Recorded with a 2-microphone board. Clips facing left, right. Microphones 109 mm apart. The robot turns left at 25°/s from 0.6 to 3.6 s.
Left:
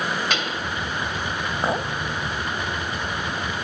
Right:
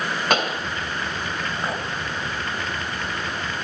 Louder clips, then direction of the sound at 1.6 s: Left 7 dB; 30° left (ahead or behind).